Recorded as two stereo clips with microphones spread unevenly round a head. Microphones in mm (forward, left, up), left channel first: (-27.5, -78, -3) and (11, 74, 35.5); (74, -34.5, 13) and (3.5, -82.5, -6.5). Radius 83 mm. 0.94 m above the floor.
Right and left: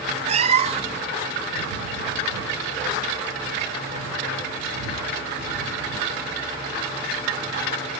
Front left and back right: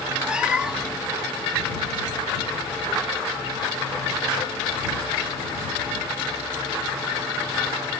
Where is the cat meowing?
125° left.